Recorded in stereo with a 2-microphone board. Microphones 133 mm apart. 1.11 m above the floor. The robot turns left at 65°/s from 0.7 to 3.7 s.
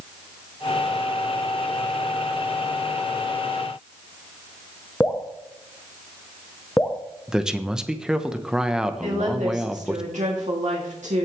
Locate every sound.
5.0 s dripping: 15° left (ahead or behind), 0.8 m
7.3 s a man speaking: 5° right (ahead or behind), 0.9 m
9.0 s a woman speaking: 75° right (ahead or behind), 2.5 m